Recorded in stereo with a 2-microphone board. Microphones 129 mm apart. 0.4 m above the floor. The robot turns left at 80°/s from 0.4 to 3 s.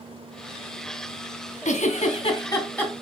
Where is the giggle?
70° left (ahead or behind), 2 m; by 3.0 s 5° right (ahead or behind), 2 m.